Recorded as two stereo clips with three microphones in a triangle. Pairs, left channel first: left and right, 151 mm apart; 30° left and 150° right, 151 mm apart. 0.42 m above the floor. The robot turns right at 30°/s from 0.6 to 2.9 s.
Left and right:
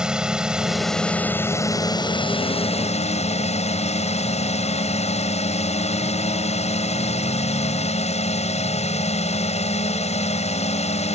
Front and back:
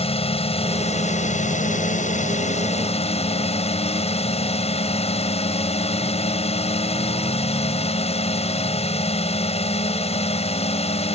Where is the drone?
5° right; by 11.2 s 65° left.